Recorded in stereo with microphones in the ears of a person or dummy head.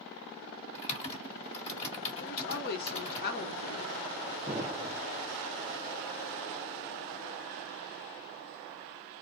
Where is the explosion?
5° right (ahead or behind), 0.6 m.